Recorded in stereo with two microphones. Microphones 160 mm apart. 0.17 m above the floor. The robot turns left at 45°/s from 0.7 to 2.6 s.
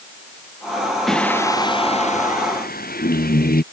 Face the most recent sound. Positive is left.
turn(degrees=110)